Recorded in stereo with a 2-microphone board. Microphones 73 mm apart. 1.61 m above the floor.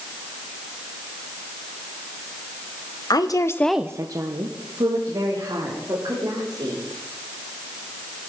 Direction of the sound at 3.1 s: 65° left (ahead or behind).